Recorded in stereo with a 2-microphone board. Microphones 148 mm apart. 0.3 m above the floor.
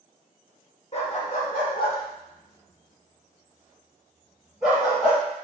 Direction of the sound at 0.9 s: 45° left (ahead or behind).